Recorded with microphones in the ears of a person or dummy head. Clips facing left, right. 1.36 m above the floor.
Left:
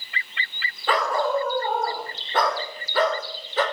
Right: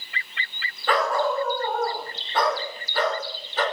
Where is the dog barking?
10° left (ahead or behind), 1.7 m; by 3.6 s 70° left (ahead or behind), 2.5 m.